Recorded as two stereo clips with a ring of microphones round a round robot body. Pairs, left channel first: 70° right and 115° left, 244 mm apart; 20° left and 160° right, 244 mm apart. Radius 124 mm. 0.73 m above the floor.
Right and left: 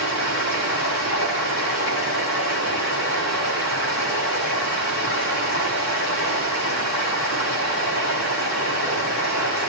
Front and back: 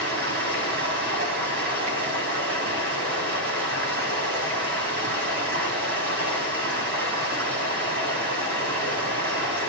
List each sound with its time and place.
0.0 s running water: 105° right, 5.5 m